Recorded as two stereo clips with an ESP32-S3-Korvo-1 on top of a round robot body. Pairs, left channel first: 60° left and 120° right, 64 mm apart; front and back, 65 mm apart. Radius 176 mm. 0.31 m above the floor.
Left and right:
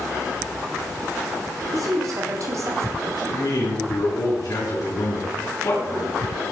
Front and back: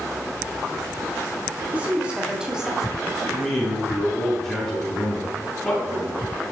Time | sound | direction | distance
1.7 | a woman speaking | 115° right | 2.5 m
3.0 | a man speaking | 80° left | 5 m